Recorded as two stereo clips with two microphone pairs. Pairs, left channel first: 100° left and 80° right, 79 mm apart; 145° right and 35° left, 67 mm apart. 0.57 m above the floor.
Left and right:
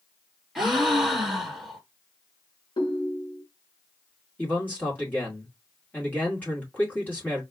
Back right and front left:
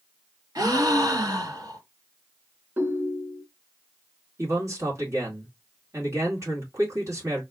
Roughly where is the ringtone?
Left.